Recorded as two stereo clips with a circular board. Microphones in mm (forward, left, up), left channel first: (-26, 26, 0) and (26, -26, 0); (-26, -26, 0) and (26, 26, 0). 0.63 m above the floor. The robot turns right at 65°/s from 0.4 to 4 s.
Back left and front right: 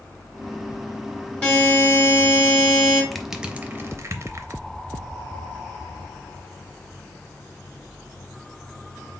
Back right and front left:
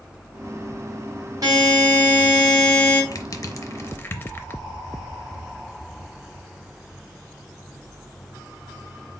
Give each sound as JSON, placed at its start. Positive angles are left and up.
{"t": 1.4, "sound": "a buzzer", "azimuth_deg": 70, "distance_m": 2.5}
{"t": 3.1, "sound": "crushing", "azimuth_deg": -140, "distance_m": 0.5}